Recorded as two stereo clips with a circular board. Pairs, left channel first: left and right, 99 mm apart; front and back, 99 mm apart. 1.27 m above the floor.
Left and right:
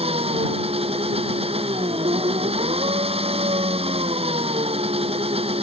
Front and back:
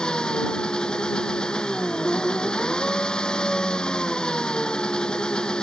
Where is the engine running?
80° right.